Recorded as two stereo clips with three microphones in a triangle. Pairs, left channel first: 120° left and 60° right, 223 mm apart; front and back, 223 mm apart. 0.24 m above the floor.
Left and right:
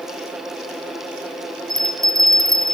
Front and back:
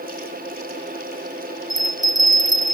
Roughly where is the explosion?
No explosion in this recording.